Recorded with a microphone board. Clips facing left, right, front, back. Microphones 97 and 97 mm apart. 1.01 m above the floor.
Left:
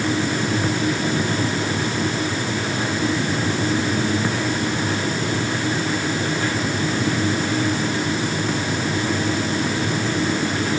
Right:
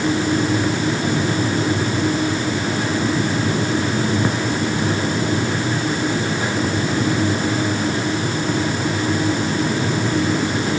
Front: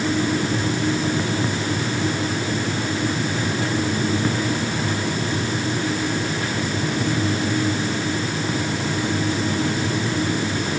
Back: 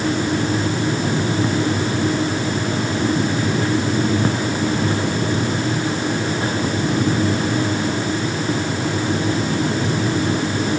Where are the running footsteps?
I don't hear running footsteps.